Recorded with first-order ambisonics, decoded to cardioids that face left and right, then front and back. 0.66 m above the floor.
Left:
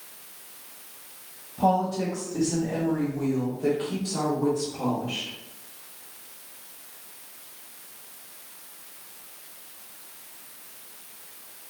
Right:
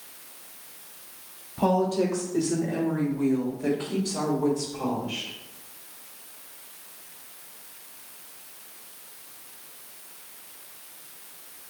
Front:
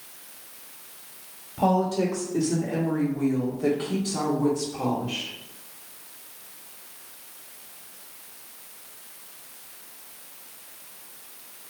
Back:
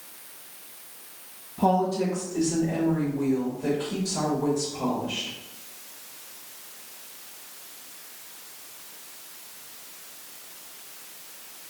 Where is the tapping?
No tapping in this recording.